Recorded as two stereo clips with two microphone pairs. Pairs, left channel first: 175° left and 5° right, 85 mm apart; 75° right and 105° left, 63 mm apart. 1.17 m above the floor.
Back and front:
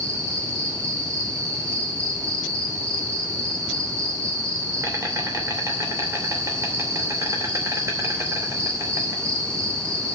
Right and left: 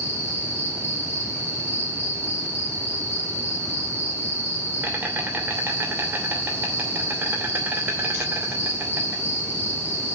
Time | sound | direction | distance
0.0 | an insect | 50° left | 2.5 m